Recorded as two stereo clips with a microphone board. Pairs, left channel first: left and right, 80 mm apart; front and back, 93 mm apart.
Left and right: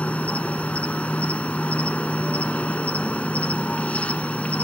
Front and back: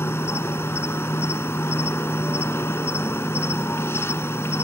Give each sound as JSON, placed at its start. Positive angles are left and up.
{"t": 0.0, "sound": "an insect", "azimuth_deg": 30, "distance_m": 0.8}